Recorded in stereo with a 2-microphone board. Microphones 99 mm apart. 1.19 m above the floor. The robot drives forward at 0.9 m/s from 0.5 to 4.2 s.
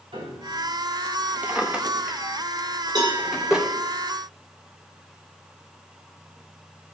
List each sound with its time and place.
0.1 s a piano: 85° right, 3.5 m
1.4 s a drawer: 15° right (ahead or behind), 0.8 m; by 3.7 s 5° right (ahead or behind), 3 m
3.0 s a cowbell: 50° right (ahead or behind), 4 m; by 3.2 s 45° right (ahead or behind), 4 m